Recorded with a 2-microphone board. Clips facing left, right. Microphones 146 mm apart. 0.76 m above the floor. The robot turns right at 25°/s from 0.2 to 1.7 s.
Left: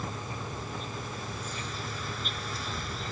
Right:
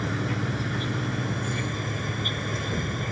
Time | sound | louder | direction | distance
0.0 | an insect | right 9 dB | 95° right | ?